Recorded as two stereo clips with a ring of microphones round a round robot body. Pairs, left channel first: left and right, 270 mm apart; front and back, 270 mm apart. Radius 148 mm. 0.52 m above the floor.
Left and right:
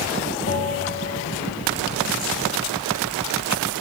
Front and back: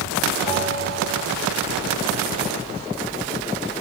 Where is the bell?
145° left, 2 m.